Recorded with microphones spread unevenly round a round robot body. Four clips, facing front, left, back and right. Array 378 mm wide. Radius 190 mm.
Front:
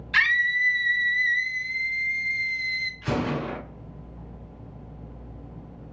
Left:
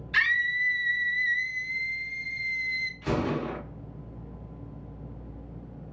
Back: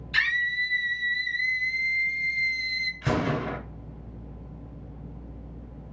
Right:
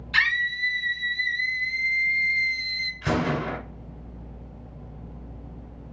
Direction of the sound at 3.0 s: 160° right.